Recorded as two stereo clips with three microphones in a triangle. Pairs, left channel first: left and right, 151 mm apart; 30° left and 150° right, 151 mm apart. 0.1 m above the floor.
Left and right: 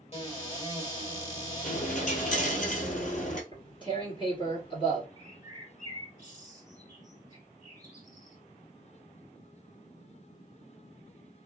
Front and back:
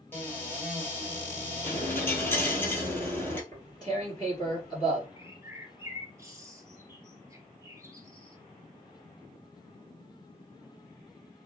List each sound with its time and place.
0.1 s a cupboard door: 100° left, 2 m
1.6 s a dropped coin: 105° left, 0.9 m
3.5 s tearing paper: 75° left, 1.7 m
5.2 s a bird: 100° right, 0.8 m